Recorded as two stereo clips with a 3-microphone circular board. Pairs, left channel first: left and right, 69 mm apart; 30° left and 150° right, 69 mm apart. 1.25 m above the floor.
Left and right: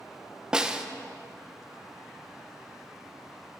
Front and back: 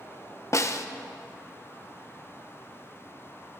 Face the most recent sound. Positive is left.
turn(degrees=-10)